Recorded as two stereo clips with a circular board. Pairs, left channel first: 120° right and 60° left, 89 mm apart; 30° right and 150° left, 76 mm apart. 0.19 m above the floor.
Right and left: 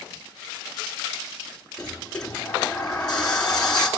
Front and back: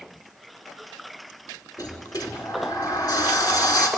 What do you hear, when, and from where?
1.8 s a sliding door: 35° right, 2.5 m